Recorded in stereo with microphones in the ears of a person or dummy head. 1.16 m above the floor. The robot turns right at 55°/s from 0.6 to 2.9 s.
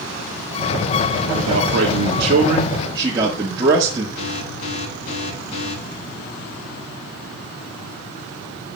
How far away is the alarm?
About 7 m.